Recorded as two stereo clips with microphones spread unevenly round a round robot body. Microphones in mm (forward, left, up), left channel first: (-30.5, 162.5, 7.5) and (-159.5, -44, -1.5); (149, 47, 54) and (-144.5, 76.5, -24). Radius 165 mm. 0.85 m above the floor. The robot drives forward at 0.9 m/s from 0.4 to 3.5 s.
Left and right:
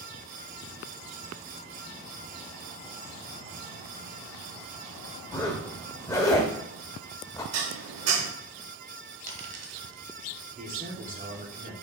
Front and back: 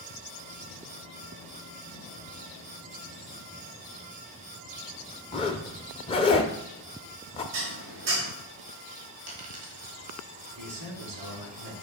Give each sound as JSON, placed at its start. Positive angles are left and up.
{"t": 5.3, "sound": "a zipper", "azimuth_deg": -5, "distance_m": 0.5}
{"t": 7.5, "sound": "dishes clattering", "azimuth_deg": -135, "distance_m": 1.0}
{"t": 9.3, "sound": "a dropped coin", "azimuth_deg": -135, "distance_m": 1.3}
{"t": 10.6, "sound": "a man speaking", "azimuth_deg": 180, "distance_m": 2.5}